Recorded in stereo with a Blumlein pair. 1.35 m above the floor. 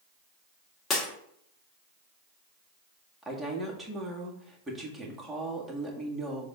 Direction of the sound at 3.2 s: Straight ahead.